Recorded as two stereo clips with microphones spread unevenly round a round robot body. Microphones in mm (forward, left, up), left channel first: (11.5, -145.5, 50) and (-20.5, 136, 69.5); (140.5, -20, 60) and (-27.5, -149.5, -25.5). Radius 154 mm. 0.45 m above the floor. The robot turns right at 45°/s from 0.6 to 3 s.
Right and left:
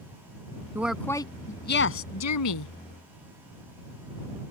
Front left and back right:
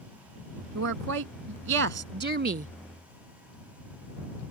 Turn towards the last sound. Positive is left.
turn(degrees=-80)